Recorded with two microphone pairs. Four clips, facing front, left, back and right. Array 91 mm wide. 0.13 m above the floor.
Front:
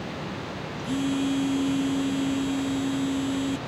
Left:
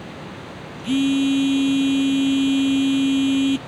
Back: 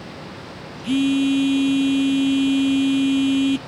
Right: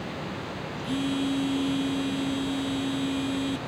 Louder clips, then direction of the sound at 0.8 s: Left 9 dB, back 8 dB; 120° left.